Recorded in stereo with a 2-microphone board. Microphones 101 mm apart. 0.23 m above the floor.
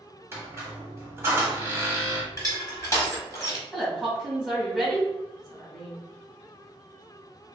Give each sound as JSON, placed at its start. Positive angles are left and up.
{"t": 0.3, "sound": "a squeak", "side_deg": -25, "distance_m": 0.9}
{"t": 2.3, "sound": "crushing", "side_deg": 30, "distance_m": 1.0}
{"t": 3.7, "sound": "a woman speaking", "side_deg": -5, "distance_m": 1.7}